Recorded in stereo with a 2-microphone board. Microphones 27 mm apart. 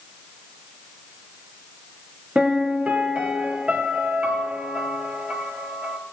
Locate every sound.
2.4 s a piano: 55° right (ahead or behind), 2.5 m